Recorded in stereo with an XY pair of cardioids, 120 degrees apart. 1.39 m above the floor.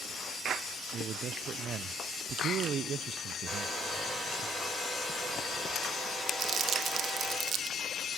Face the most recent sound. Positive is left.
turn(degrees=-55)